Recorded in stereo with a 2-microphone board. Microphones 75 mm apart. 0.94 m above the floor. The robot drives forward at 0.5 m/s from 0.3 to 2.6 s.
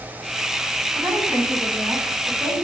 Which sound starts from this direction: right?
A woman speaking, at 0.9 s.